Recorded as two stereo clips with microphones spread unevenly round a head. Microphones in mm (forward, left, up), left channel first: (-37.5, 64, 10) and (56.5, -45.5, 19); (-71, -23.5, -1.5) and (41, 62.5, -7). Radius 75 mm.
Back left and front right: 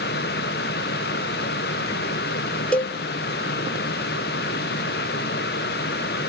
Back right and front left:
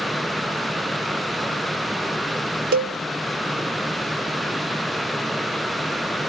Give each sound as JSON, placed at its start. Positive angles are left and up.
{"t": 2.7, "sound": "a cowbell", "azimuth_deg": 50, "distance_m": 0.7}